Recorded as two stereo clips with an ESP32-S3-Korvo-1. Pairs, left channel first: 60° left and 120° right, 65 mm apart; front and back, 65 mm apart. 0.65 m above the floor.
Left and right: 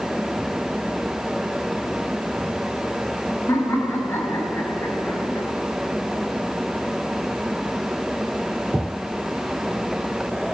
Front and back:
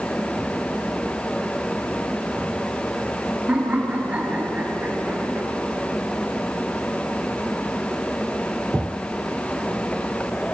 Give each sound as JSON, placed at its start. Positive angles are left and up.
{"t": 3.5, "sound": "laughter", "azimuth_deg": 110, "distance_m": 5.0}